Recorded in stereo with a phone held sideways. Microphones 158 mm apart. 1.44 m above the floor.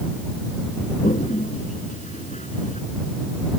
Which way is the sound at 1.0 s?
50° left (ahead or behind).